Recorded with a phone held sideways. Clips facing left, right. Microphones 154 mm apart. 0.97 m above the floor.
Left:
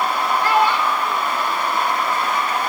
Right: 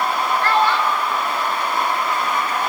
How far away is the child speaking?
About 1.6 m.